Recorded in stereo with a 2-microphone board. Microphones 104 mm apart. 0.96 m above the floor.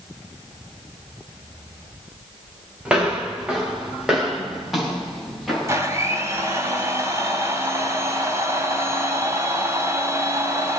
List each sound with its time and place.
2.9 s footsteps: 10° right (ahead or behind), 5.5 m; by 5.8 s centre (ahead or behind), 7.5 m
5.7 s a blender: 25° right (ahead or behind), 2.5 m